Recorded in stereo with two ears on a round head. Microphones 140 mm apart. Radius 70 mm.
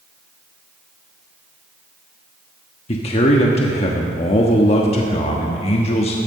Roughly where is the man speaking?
Left.